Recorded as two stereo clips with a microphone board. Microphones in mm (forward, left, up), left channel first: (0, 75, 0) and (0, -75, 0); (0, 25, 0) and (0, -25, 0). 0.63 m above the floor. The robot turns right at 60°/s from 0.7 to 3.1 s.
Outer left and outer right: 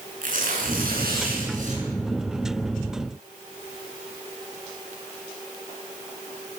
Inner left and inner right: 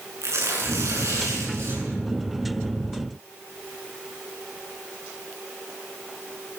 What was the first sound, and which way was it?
Tearing paper, 115° right.